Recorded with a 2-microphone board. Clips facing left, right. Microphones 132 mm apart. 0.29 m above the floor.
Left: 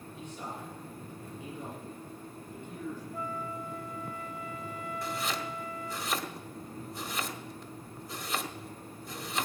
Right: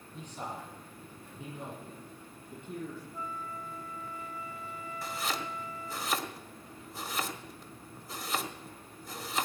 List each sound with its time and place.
0.1 s a man speaking: 40° right (ahead or behind), 8 m; by 3.0 s 45° right (ahead or behind), 9.5 m
3.1 s a flute: 70° left (ahead or behind), 1.4 m
5.0 s chopping: centre (ahead or behind), 1.4 m